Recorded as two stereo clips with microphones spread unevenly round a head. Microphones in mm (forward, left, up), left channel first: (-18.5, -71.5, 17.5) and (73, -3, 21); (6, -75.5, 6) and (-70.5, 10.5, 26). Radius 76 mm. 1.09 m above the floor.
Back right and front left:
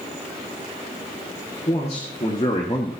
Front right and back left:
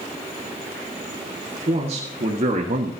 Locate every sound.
1.7 s a man speaking: 170° left, 2.5 m; by 2.9 s 145° left, 1.2 m